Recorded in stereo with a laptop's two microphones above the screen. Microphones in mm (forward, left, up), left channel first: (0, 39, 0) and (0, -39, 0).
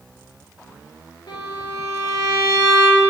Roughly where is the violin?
Left.